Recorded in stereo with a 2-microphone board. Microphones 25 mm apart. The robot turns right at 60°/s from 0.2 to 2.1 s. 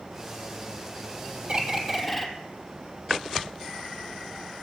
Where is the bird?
35° right, 1.1 m; by 2.3 s straight ahead, 1.1 m.